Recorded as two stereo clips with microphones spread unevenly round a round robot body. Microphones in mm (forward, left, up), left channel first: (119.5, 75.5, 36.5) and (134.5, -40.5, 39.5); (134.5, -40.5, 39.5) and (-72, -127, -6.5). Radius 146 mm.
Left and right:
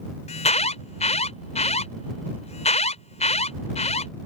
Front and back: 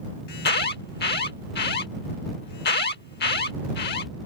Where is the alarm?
80° left.